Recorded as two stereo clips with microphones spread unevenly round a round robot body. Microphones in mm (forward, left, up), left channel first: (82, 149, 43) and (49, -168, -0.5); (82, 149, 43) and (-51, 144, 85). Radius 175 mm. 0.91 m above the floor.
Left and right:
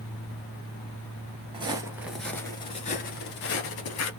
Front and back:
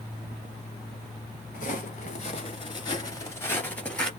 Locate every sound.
1.5 s footsteps: 20° right, 1.0 m; by 4.1 s 100° left, 1.3 m